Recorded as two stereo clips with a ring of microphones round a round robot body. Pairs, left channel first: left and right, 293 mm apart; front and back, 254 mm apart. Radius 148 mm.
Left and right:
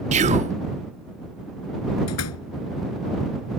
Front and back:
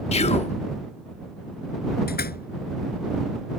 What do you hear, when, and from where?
0.1 s whispering: 45° right
2.1 s a door slam: 50° left